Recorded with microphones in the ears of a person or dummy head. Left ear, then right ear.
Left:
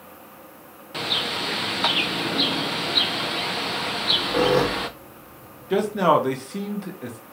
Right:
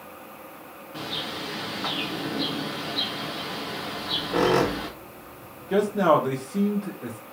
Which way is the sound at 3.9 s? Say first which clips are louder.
Left 5 dB; 40° right (ahead or behind).